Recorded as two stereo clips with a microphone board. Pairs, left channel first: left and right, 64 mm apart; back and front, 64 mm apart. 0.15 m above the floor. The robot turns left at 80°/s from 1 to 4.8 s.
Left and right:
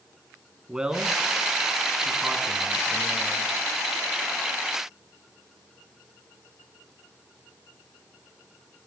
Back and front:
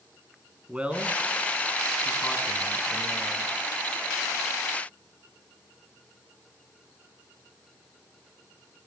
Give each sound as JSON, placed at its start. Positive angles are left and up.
{"t": 0.7, "sound": "a man speaking", "azimuth_deg": -35, "distance_m": 1.2}